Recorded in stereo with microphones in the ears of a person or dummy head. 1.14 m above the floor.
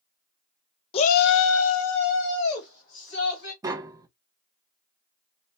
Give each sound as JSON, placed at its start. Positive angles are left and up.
{"t": 0.9, "sound": "a shout", "side_deg": 25, "distance_m": 0.5}
{"t": 3.6, "sound": "tapping", "side_deg": -20, "distance_m": 0.5}